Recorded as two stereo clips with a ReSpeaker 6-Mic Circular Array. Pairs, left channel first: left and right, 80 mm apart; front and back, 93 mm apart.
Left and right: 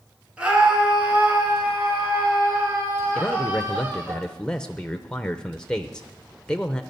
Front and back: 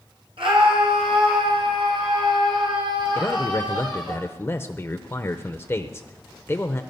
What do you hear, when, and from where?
0.4 s a scream: 165° right, 5.5 m; by 4.2 s 150° right, 8 m
3.1 s a man speaking: 20° left, 0.8 m